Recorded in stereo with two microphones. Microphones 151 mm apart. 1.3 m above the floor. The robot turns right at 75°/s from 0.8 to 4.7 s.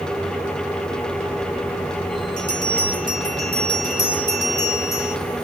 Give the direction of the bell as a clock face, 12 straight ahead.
12 o'clock.